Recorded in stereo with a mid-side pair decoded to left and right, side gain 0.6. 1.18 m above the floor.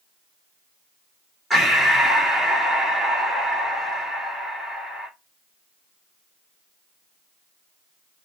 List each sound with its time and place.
1.5 s breathing: 10° right, 1.9 m